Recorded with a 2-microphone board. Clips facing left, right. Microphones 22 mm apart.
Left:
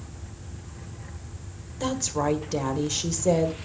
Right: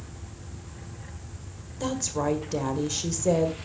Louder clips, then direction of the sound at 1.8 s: Left 2 dB; 5° left (ahead or behind).